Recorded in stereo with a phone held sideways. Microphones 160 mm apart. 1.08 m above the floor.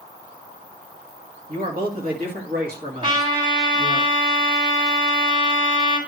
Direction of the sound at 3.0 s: 35° right (ahead or behind).